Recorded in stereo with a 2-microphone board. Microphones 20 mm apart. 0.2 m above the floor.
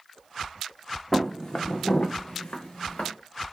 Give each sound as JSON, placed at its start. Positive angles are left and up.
{"t": 1.1, "sound": "footsteps", "side_deg": 15, "distance_m": 0.6}